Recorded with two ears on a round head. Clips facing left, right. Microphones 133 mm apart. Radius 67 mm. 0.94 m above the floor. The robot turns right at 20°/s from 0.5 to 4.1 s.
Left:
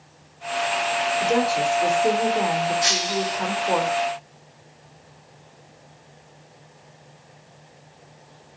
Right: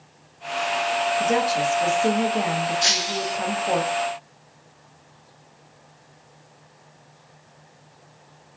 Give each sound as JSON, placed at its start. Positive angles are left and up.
{"t": 1.2, "sound": "a woman speaking", "azimuth_deg": -115, "distance_m": 1.9}
{"t": 2.8, "sound": "breaking glass", "side_deg": -35, "distance_m": 0.6}